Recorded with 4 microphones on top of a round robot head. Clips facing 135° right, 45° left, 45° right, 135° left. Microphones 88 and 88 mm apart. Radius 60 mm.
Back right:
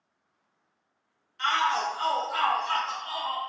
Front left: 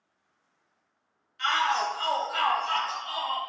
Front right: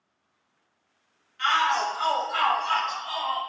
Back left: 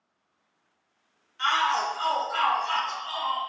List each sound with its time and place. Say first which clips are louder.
1.4 s a shout: even, front right 1 dB; 175° right, 0.6 m; by 3.4 s 115° right, 1.4 m